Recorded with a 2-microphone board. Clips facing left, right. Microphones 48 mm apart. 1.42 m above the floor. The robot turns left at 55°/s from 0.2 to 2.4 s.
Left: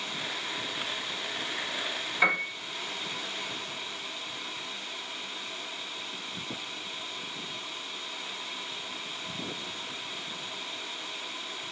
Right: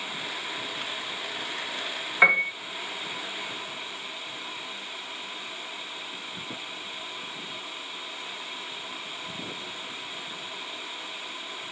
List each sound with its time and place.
2.2 s a piano: 45° right (ahead or behind), 0.9 m; by 2.5 s 50° right (ahead or behind), 0.9 m